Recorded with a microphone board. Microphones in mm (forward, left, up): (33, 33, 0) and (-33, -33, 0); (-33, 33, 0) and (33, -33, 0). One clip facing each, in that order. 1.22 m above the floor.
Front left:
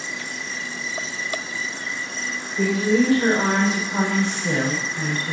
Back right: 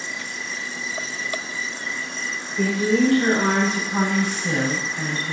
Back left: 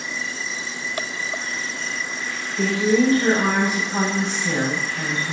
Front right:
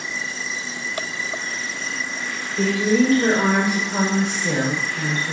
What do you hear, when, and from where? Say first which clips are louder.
2.6 s a woman speaking: even, even; 40° right, 5 m; by 5.3 s straight ahead, 4 m